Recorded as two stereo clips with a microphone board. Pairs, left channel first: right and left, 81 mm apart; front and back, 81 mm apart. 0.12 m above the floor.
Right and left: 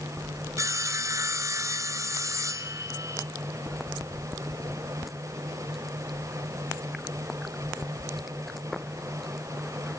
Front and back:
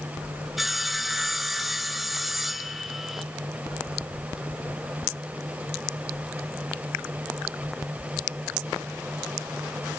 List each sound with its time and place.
0.6 s sawing: 95° left, 0.7 m